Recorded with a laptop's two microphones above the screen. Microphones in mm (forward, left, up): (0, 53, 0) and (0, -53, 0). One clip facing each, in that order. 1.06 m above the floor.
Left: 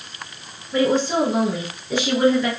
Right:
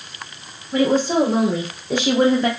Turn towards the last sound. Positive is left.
turn(degrees=-40)  # may be behind; listen again after turning